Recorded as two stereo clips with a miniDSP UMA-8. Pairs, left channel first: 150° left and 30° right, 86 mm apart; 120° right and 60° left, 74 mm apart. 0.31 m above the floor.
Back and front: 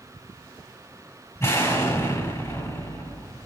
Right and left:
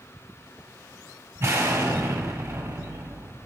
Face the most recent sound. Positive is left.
turn(degrees=105)